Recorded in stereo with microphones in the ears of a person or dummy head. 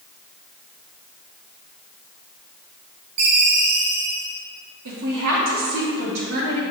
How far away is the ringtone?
About 1.6 m.